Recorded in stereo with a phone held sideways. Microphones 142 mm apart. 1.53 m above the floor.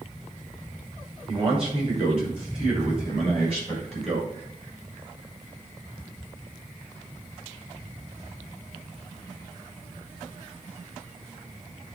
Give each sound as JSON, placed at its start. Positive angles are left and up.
{"t": 1.3, "sound": "a man speaking", "side_deg": -40, "distance_m": 5.5}